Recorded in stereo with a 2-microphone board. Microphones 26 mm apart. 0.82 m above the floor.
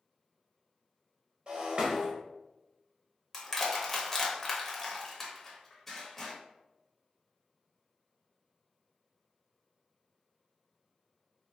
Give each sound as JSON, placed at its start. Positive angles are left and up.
{"t": 1.5, "sound": "breaking glass", "side_deg": -40, "distance_m": 1.0}
{"t": 3.3, "sound": "crushing", "side_deg": 10, "distance_m": 0.8}